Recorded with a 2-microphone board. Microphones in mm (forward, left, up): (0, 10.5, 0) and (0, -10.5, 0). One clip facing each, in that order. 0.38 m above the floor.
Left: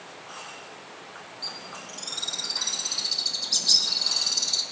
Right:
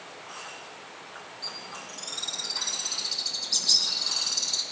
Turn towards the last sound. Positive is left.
turn(degrees=20)  # may be behind; listen again after turning